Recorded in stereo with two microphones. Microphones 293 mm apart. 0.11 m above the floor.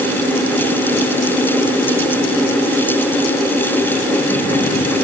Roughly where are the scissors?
No scissors in this recording.